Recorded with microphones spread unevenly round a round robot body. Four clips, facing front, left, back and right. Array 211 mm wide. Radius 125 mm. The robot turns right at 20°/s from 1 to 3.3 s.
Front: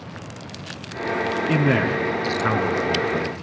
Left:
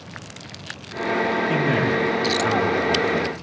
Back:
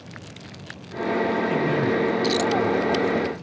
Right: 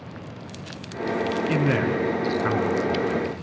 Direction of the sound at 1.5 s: 15° right.